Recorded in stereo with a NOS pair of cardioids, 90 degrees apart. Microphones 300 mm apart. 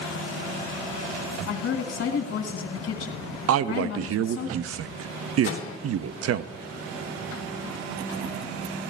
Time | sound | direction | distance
1.5 | a woman speaking | 50° left | 2 m
3.5 | a man speaking | 50° right | 0.6 m
5.4 | a microwave | 50° left | 1.4 m